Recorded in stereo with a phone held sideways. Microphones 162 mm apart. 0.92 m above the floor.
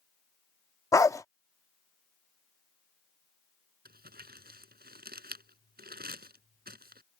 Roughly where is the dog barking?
Centre.